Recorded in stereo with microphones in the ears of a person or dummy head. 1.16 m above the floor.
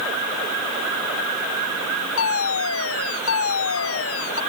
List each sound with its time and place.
2.2 s a fire alarm: 80° left